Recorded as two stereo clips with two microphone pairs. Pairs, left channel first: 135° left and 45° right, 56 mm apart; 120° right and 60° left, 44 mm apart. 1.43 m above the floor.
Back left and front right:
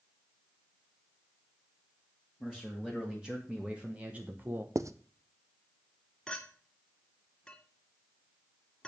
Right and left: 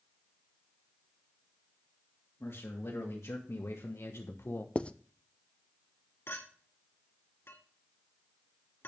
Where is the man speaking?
130° right, 2.5 m; by 4.8 s 90° right, 1.0 m.